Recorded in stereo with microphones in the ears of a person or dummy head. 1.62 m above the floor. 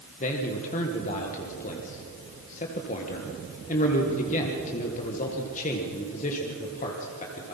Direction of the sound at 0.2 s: 35° left (ahead or behind).